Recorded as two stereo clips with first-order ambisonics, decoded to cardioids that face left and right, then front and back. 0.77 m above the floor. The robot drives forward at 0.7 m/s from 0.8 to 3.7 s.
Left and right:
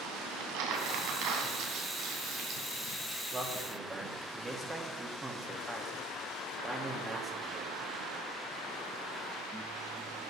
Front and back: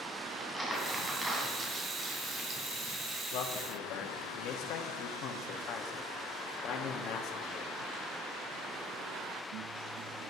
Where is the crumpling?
100° right, 2 m; by 3.2 s 135° right, 3 m.